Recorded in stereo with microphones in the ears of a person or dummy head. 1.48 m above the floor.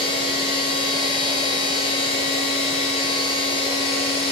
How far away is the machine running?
About 1.3 m.